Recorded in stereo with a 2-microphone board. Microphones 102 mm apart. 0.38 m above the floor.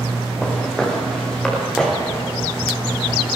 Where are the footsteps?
10° left (ahead or behind), 7 m.